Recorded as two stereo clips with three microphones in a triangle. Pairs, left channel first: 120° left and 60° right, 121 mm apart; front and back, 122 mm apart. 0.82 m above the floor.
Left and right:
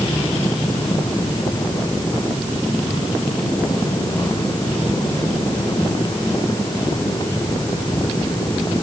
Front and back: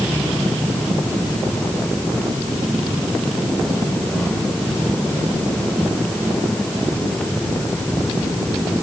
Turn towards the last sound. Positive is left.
No sound to turn to.